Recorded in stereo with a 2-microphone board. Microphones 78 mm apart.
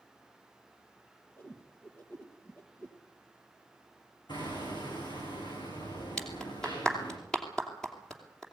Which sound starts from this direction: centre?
A clap, at 6.2 s.